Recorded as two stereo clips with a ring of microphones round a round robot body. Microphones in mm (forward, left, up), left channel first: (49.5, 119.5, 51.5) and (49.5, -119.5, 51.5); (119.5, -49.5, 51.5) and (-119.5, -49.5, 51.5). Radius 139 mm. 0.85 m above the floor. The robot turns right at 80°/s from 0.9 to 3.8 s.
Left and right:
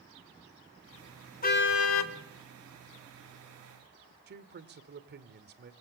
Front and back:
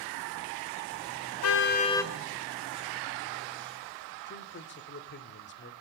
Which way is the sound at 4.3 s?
45° right.